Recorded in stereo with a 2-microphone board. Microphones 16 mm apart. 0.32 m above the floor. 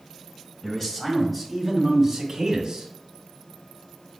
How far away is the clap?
No clap in this recording.